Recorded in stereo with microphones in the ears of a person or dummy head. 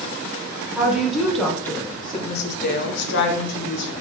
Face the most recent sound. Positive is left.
turn(degrees=60)  # may be behind; listen again after turning